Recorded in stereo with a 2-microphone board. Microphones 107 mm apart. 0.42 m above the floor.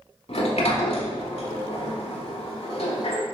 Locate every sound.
0.3 s a sliding door: 65° left (ahead or behind), 0.6 m